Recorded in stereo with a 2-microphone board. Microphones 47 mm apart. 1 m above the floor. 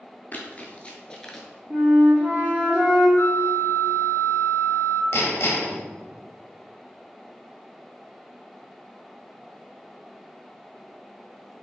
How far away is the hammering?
About 1.0 m.